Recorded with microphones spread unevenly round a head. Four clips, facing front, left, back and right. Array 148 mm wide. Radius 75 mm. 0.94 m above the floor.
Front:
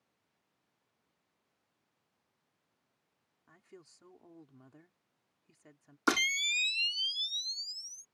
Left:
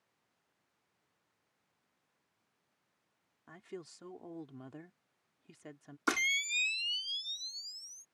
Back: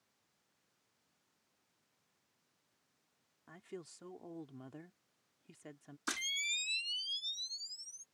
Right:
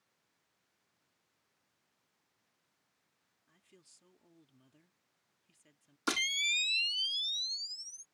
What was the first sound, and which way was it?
A woman speaking, 120° left.